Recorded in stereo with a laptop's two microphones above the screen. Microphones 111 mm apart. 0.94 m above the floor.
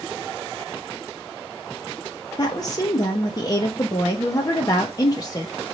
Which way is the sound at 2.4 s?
35° left (ahead or behind).